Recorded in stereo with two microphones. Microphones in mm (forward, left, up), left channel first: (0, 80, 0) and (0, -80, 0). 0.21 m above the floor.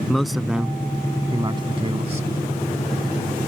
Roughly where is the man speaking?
Centre.